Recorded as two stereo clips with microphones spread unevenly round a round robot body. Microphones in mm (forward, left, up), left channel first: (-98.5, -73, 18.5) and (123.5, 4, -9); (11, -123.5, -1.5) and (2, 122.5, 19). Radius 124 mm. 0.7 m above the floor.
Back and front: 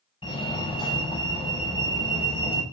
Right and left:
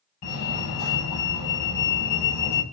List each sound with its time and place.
0.2 s a fire alarm: 90° right, 8 m